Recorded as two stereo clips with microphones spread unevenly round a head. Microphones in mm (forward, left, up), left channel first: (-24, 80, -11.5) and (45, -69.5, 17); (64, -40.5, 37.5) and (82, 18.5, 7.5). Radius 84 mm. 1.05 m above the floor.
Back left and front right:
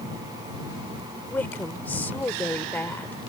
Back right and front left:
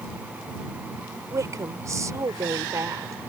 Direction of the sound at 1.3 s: 35° left.